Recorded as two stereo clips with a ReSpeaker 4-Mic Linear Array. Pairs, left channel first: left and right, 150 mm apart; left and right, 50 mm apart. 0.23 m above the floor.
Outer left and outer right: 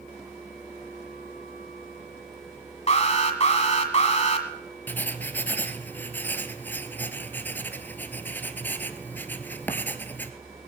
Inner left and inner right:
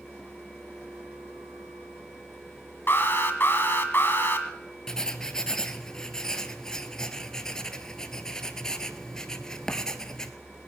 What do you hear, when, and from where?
2.9 s an alarm: 45° left (ahead or behind), 1.5 m
4.9 s writing: 15° left (ahead or behind), 0.9 m